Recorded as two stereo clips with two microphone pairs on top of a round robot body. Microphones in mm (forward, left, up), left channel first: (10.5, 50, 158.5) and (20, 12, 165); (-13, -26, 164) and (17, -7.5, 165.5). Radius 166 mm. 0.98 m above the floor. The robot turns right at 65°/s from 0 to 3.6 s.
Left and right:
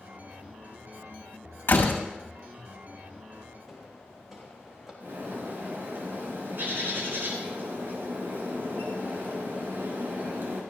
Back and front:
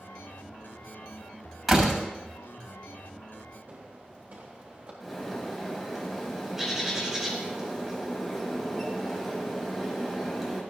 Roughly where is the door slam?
Behind left.